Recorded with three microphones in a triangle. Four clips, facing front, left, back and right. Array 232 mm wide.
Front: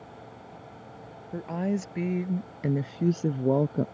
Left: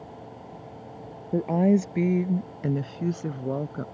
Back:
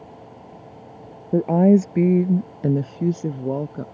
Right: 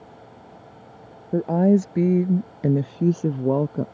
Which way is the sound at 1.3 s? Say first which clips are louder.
Right 3 dB, back 14 dB; 165° right.